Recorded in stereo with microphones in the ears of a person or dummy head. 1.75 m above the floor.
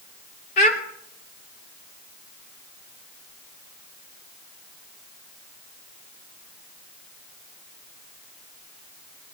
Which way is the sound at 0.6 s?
45° left (ahead or behind).